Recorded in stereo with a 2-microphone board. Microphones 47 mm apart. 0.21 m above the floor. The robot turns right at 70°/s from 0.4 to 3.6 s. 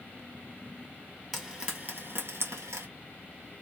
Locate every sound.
1.3 s frying: centre (ahead or behind), 1.6 m; by 2.9 s 70° right (ahead or behind), 1.6 m